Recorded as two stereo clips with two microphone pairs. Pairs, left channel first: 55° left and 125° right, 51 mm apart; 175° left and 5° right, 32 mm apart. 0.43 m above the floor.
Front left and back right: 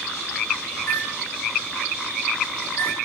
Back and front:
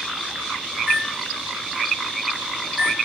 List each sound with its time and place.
0.8 s a microwave: 40° left, 0.6 m